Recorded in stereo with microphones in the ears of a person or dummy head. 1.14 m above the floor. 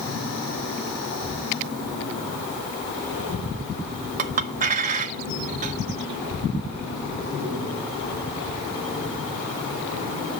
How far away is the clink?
About 1.2 m.